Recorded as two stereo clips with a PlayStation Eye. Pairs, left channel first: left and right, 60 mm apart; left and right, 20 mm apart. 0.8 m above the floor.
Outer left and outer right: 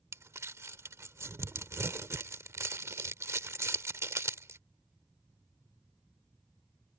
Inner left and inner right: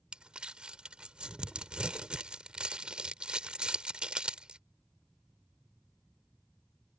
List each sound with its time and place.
0.1 s crumpling: 55° right (ahead or behind)